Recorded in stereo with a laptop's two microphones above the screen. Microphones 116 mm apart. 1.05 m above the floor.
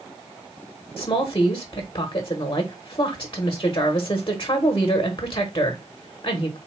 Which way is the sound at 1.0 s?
40° left (ahead or behind).